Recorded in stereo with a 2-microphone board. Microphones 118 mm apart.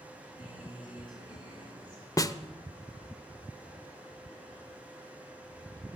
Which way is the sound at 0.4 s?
40° left (ahead or behind).